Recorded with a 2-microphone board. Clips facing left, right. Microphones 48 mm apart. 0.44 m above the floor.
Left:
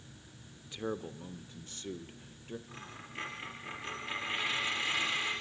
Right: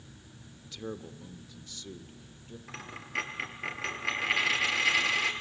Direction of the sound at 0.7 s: 20° left (ahead or behind).